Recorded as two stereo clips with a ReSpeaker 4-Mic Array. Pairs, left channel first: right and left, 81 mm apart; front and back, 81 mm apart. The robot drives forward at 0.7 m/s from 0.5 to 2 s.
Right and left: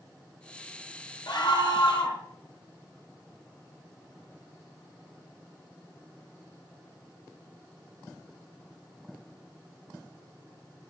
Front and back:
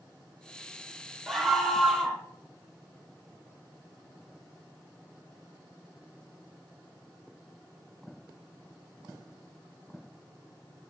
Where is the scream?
85° right, 3.5 m; by 2.2 s 95° right, 3.5 m.